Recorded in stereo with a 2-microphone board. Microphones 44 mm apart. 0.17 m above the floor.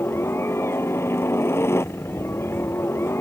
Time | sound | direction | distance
0.0 | a helicopter | 70° left (ahead or behind) | ?